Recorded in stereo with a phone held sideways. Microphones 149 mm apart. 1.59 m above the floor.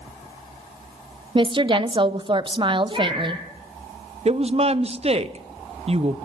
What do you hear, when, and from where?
1.4 s a woman speaking: 35° right (ahead or behind), 0.7 m
2.9 s a cat meowing: 30° right (ahead or behind), 9 m
4.2 s a woman speaking: 45° right (ahead or behind), 0.6 m